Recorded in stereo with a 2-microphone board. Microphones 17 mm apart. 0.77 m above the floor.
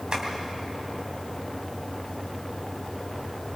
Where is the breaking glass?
I don't hear breaking glass.